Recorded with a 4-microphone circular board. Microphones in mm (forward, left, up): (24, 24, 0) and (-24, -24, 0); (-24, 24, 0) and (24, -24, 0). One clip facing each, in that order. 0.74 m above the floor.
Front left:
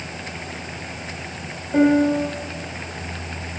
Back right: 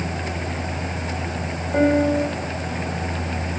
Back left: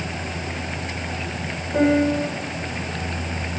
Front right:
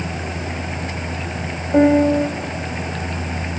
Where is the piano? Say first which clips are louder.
Front left 2 dB, front right 5 dB; 50° right, 2.5 m.